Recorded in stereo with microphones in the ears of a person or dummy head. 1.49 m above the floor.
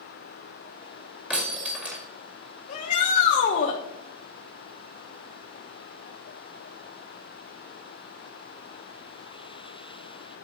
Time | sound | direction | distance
1.3 | breaking glass | 5° right (ahead or behind) | 1.9 m
2.7 | a shout | 40° left (ahead or behind) | 1.2 m